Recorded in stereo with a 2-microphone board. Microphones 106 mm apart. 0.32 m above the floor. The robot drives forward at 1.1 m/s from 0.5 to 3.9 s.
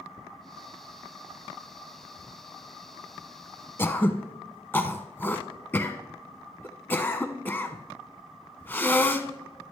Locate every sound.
3.8 s throat clearing: 25° left (ahead or behind), 0.7 m; by 9.3 s 20° left (ahead or behind), 0.8 m